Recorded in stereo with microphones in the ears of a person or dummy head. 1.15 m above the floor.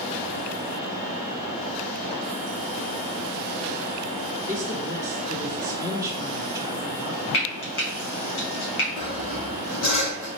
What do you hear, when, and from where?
4.4 s a woman speaking: 5° right (ahead or behind), 0.7 m
7.3 s frying: 60° left (ahead or behind), 1.3 m
9.0 s sawing: 75° left (ahead or behind), 1.9 m